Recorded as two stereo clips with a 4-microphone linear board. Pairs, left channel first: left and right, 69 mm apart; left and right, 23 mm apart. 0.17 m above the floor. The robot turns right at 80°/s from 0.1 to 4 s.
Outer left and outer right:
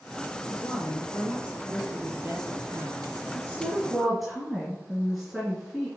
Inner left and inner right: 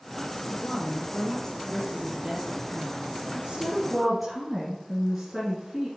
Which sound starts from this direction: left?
A woman speaking, at 0.5 s.